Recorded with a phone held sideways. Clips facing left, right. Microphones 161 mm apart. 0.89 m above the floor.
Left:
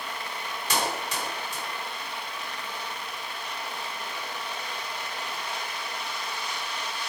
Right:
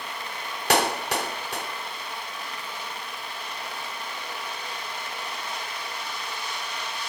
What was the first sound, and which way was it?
A clap, 70° right (ahead or behind).